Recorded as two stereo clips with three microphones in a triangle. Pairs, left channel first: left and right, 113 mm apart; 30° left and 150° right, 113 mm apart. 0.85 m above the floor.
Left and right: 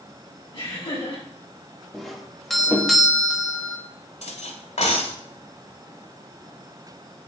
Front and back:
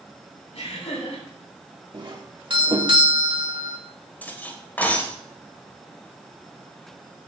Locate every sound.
0.5 s laughter: 30° left, 5 m
1.9 s a doorbell: straight behind, 1.8 m
4.2 s cutlery clinking: 105° left, 1.8 m